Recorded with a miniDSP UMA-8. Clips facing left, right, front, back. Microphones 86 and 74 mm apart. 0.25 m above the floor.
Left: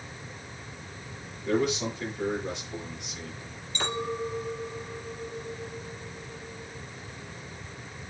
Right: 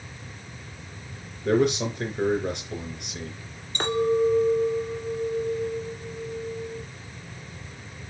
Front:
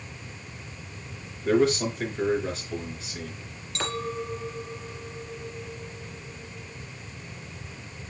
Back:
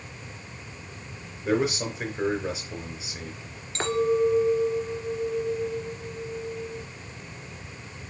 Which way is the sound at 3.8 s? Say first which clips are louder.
Right 9 dB, back 9 dB; 120° right.